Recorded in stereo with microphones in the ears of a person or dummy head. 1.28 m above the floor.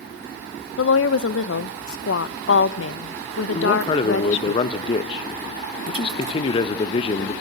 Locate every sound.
0.8 s a woman speaking: 75° left (ahead or behind), 1.2 m
3.5 s a man speaking: 25° left (ahead or behind), 1.3 m